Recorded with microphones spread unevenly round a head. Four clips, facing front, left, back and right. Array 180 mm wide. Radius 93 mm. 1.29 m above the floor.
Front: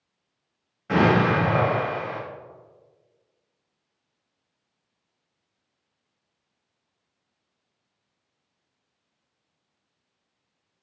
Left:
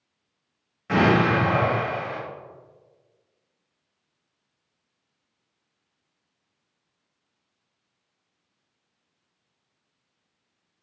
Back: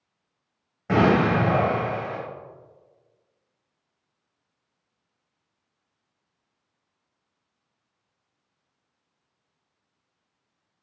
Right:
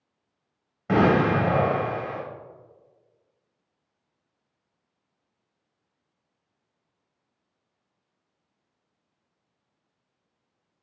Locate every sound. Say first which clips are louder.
0.9 s an explosion: even, even; 115° right, 0.8 m